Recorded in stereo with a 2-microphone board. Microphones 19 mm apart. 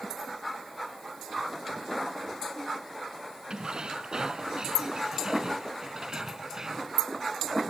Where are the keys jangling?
55° right (ahead or behind); by 7.0 s 30° right (ahead or behind).